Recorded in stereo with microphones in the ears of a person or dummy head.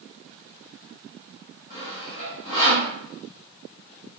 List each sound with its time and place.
1.7 s sawing: 60° left (ahead or behind), 1.9 m